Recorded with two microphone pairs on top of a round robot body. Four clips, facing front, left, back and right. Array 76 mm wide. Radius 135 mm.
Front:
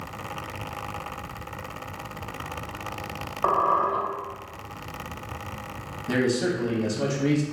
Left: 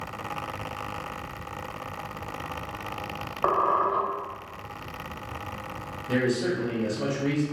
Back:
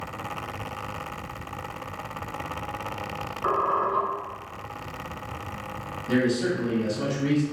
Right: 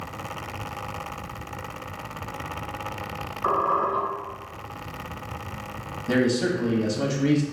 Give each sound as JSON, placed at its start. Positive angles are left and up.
{"t": 3.4, "sound": "a squeak", "azimuth_deg": 55, "distance_m": 1.1}
{"t": 6.1, "sound": "a man speaking", "azimuth_deg": -65, "distance_m": 0.8}